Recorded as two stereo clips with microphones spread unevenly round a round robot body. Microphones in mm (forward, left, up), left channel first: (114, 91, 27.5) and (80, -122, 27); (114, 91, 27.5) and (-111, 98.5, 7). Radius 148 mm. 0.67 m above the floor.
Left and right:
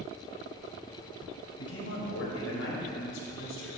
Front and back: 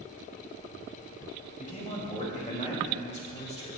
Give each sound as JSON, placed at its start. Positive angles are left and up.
{"t": 1.6, "sound": "a man speaking", "azimuth_deg": 55, "distance_m": 4.5}